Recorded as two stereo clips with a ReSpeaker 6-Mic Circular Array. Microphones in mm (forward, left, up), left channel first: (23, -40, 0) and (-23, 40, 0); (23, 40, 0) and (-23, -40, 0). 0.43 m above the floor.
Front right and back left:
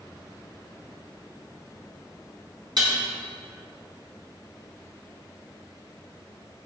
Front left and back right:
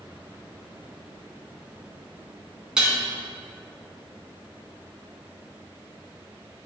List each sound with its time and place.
2.8 s dishes clattering: 155° left, 2.5 m